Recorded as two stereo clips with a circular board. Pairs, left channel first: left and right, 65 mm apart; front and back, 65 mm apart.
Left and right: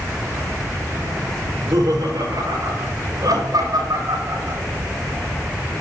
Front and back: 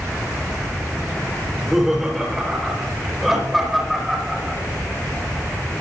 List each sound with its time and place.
1.4 s laughter: 95° right, 3.5 m